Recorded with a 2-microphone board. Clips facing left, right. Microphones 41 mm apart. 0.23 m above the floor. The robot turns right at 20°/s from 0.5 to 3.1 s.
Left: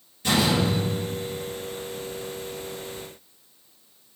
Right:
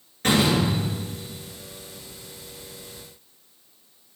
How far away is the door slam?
About 3 m.